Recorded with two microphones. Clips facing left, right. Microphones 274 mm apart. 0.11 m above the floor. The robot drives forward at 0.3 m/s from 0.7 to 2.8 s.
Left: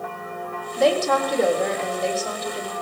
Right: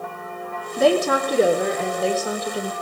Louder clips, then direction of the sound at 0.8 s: Right 2 dB; 65° right (ahead or behind).